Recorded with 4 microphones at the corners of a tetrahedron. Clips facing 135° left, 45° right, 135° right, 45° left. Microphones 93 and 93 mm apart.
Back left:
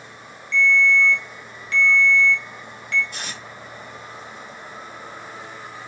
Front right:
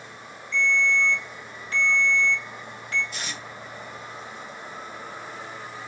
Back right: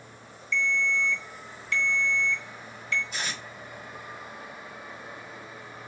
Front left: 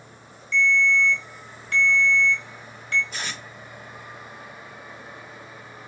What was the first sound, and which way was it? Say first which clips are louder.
A ringtone: back left 5 dB, front left 6 dB; 5° left.